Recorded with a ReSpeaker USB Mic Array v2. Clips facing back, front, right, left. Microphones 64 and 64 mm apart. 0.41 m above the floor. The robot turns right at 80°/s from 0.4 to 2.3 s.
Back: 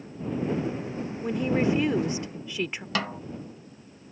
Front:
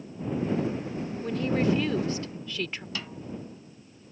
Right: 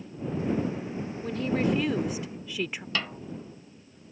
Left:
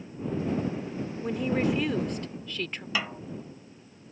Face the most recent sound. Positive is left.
turn(degrees=170)